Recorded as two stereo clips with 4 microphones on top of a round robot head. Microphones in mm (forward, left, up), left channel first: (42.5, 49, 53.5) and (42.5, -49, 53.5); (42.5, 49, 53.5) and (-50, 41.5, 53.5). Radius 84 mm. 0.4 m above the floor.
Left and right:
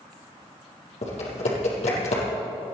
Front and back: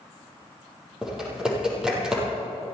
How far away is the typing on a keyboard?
About 6 m.